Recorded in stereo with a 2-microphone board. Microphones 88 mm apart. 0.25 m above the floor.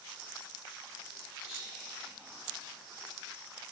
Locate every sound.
1.4 s whispering: 10° right (ahead or behind), 1.7 m